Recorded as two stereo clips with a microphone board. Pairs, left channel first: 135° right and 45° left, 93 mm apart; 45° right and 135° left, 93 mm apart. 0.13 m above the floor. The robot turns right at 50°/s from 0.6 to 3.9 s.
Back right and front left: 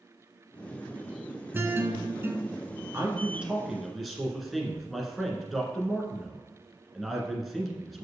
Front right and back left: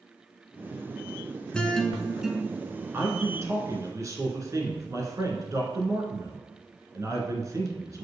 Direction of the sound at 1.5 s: 20° left.